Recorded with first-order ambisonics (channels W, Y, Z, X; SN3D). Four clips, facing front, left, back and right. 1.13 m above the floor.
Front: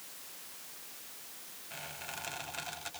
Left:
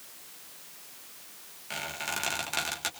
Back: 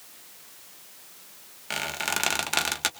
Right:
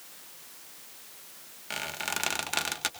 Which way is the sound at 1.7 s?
170° right.